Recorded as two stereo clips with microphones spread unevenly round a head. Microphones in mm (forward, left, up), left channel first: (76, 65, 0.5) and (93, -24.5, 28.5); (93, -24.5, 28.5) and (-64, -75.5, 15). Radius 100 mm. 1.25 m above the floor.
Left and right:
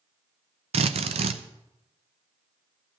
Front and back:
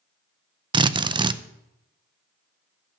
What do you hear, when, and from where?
0.7 s a drill: 95° right, 0.6 m